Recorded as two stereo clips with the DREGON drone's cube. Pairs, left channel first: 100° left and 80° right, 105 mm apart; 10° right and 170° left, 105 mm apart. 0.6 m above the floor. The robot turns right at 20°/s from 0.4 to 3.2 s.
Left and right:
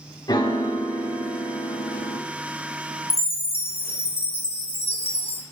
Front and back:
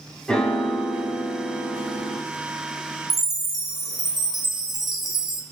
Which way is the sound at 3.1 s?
80° left.